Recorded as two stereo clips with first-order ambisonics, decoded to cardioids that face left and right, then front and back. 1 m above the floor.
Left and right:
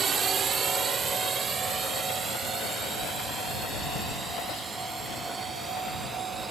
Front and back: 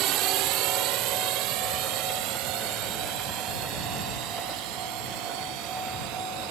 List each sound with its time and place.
0.0 s a drone: 150° right; by 6.5 s 160° right